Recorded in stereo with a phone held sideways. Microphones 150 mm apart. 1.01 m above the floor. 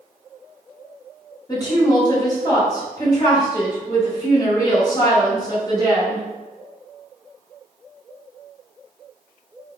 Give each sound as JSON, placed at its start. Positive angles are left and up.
{"t": 1.5, "sound": "a woman speaking", "side_deg": 25, "distance_m": 2.0}